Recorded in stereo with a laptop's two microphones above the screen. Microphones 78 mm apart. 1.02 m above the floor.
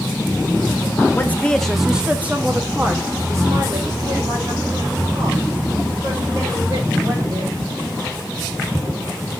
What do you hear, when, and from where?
1.1 s a woman speaking: 25° left (ahead or behind), 0.6 m; by 7.5 s 55° right (ahead or behind), 3.5 m